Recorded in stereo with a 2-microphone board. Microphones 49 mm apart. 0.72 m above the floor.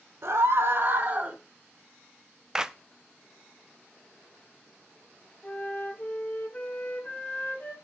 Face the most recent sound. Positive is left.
turn(degrees=35)  # may be behind; listen again after turning